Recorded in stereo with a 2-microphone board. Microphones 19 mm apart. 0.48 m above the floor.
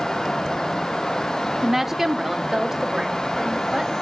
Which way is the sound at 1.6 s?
15° right (ahead or behind).